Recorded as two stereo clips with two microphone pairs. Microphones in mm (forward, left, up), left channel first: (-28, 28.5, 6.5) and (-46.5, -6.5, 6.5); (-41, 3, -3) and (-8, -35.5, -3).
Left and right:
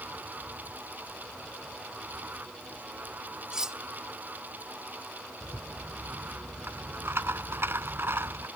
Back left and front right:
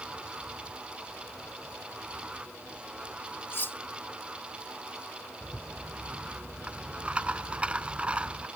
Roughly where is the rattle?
Behind right.